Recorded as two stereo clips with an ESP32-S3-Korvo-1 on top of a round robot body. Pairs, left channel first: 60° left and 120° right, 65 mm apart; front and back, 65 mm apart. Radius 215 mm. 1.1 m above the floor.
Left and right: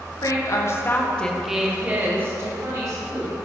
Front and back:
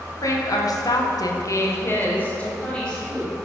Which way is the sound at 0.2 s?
35° left.